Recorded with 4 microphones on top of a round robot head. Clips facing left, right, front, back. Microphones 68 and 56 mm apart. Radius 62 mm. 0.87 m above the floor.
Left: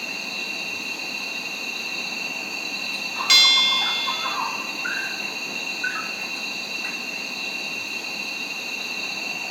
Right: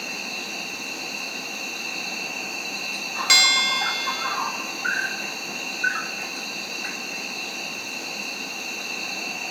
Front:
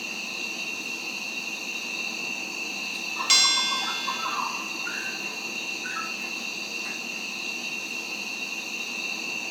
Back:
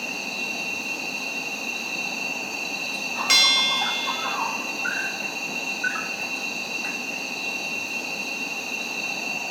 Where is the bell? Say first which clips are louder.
Even, back 4 dB; 140° right, 1.1 m.